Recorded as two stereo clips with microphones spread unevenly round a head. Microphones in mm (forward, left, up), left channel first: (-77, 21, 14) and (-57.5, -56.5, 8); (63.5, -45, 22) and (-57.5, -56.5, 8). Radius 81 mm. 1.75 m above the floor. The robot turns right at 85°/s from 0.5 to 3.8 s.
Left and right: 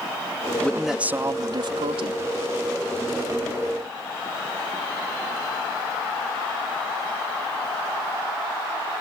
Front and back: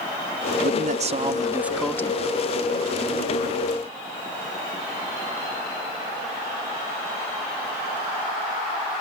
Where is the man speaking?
175° left; by 2.2 s 50° right.